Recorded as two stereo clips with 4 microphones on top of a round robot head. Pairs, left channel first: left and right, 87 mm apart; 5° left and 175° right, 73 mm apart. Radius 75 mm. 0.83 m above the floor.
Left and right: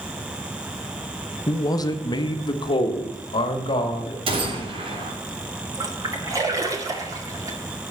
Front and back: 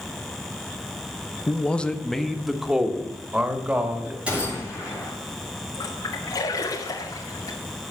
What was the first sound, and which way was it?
A man speaking, 60° left.